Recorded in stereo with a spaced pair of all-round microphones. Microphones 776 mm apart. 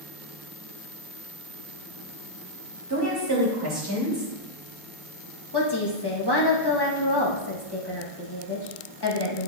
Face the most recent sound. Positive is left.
turn(degrees=30)  # may be behind; listen again after turning